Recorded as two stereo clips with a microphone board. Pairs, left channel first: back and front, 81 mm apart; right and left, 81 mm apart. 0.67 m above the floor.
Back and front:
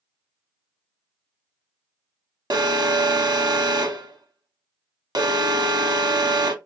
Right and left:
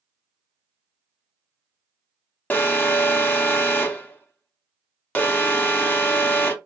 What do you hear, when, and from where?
2.5 s an alarm: 25° right, 0.8 m